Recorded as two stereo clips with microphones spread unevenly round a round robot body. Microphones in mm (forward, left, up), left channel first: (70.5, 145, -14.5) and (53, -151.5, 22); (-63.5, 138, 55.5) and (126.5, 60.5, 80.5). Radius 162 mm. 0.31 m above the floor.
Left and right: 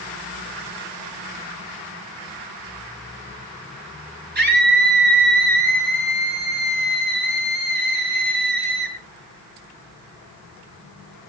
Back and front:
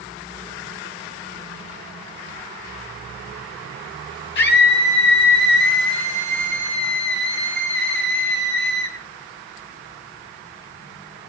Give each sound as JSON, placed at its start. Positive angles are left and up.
{"t": 4.3, "sound": "a scream", "azimuth_deg": -160, "distance_m": 5.0}